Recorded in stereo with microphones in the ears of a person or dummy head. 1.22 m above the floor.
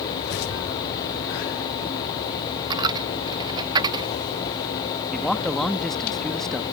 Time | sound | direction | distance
2.7 | a dropped coin | 25° right (ahead or behind) | ?
5.1 | a man speaking | 10° left (ahead or behind) | ?